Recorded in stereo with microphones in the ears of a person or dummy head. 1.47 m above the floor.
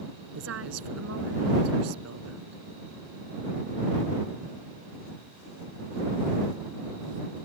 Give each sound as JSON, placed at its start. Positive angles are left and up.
{"t": 0.3, "sound": "a woman speaking", "side_deg": -80}